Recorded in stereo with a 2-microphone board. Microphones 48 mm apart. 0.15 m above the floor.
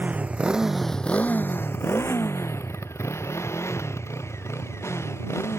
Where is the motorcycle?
40° right (ahead or behind); by 5.6 s 85° left.